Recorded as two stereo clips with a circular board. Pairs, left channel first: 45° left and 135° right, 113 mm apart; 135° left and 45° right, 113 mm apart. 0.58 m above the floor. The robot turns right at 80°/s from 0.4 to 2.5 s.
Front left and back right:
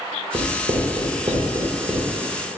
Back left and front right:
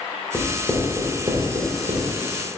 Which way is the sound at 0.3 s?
165° right.